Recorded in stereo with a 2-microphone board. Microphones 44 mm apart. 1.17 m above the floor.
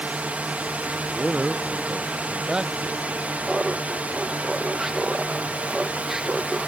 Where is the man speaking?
10° right (ahead or behind).